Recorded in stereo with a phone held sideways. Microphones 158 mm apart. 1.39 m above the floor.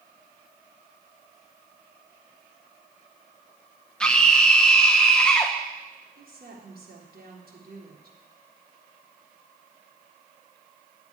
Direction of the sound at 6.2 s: 75° right (ahead or behind).